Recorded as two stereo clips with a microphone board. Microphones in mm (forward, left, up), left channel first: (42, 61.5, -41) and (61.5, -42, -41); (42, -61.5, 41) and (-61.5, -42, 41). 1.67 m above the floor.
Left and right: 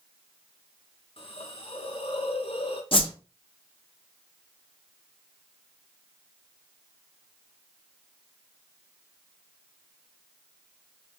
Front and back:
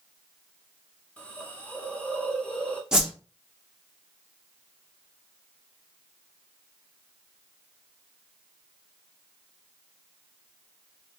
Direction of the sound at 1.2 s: 65° left.